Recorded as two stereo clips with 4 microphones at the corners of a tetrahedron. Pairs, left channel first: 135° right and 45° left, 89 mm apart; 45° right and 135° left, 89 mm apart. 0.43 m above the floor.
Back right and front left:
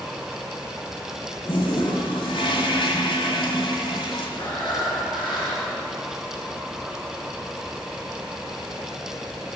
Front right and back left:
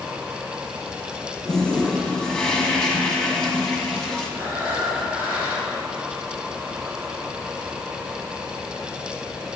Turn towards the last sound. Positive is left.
turn(degrees=-160)